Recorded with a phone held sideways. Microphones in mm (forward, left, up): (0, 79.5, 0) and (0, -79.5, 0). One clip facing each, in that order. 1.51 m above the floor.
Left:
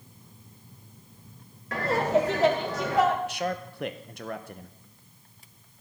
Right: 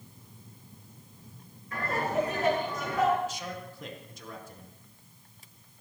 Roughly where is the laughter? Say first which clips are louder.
Left 6 dB; left.